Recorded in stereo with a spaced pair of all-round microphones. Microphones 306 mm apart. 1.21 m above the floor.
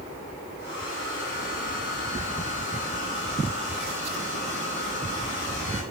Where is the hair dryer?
40° right (ahead or behind), 7.5 m.